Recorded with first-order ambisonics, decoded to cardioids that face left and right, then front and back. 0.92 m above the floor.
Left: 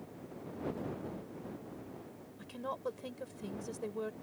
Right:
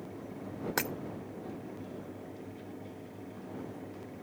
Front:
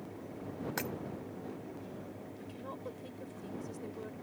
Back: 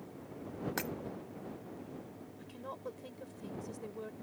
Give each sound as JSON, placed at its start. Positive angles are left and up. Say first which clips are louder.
{"t": 0.8, "sound": "breaking glass", "louder": "right 9 dB, front 1 dB", "azimuth_deg": -90}
{"t": 2.4, "sound": "a woman speaking", "louder": "left 6 dB, back 1 dB", "azimuth_deg": 95}